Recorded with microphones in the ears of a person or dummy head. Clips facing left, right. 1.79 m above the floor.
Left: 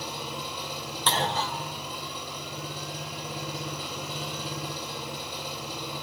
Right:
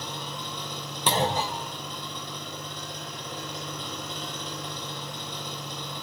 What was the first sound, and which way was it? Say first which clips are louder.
An engine running: left 1 dB; 10° left (ahead or behind).